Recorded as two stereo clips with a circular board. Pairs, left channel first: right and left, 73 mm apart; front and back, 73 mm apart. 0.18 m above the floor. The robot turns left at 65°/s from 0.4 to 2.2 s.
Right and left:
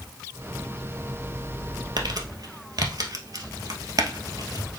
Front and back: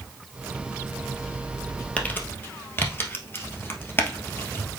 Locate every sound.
2.0 s crumpling: 75° left, 1.4 m; by 4.7 s 60° left, 1.4 m